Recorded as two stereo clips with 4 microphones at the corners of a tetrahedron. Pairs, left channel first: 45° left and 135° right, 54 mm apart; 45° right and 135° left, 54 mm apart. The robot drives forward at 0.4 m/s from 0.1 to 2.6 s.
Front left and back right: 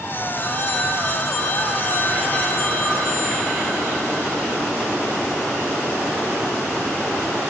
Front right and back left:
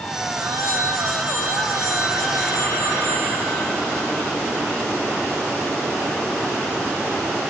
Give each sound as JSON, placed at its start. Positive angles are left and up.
{"t": 0.4, "sound": "a phone ringing", "azimuth_deg": 110, "distance_m": 4.5}